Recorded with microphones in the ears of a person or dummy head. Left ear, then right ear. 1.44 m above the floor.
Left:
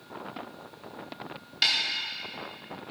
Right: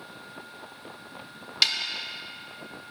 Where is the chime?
No chime in this recording.